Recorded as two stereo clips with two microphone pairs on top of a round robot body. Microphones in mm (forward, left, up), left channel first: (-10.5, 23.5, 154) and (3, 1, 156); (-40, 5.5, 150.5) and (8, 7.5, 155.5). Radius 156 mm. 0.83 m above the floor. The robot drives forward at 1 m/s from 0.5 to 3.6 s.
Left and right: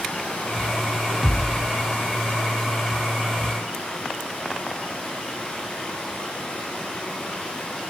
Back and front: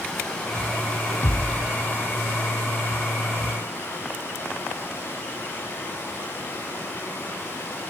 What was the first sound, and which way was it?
Running water, 105° left.